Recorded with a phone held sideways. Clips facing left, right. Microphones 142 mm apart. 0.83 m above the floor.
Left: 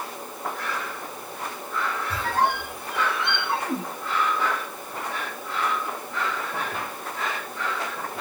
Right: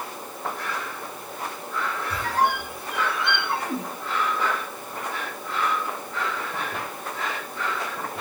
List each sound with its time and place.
2.1 s a squeak: 25° left (ahead or behind), 1.1 m